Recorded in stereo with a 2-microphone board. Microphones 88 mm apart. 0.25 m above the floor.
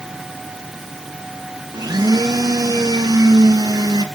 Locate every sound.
1.7 s a blender: 50° right (ahead or behind), 2.5 m